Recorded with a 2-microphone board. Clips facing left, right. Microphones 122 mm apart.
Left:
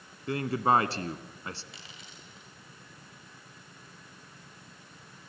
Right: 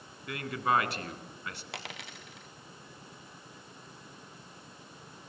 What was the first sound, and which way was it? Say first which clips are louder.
A man speaking: left 4 dB; 35° left (ahead or behind).